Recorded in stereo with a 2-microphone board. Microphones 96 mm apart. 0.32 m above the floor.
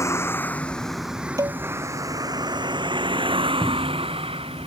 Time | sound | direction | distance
0.0 | a vehicle | 30° left (ahead or behind) | ?
1.4 | dishes clattering | 35° right (ahead or behind) | ?
3.6 | a cupboard door | 15° left (ahead or behind) | ?